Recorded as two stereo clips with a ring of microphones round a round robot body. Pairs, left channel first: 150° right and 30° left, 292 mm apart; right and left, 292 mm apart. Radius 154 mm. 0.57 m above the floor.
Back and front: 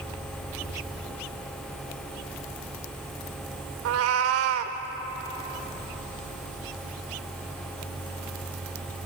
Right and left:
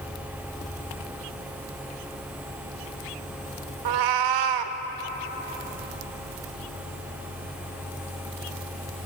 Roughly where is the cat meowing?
Left.